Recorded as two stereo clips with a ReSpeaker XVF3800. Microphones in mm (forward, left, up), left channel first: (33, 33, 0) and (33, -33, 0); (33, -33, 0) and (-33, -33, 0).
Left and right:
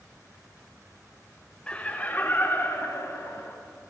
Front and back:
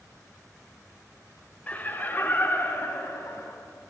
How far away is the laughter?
About 1.0 m.